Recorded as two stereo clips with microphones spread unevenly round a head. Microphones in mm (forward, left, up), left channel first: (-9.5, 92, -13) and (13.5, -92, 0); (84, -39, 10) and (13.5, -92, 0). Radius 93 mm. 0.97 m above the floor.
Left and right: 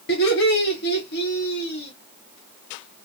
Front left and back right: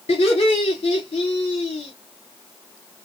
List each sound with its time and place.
0.1 s laughter: 60° left, 2.5 m